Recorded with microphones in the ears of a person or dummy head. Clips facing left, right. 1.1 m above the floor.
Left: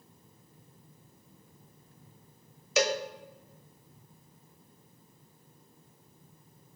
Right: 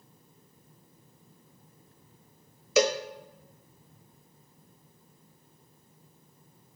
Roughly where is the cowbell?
Right.